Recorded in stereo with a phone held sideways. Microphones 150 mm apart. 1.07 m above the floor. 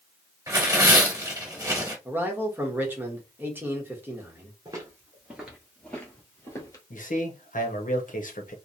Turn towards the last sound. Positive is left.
turn(degrees=60)  # may be behind; listen again after turning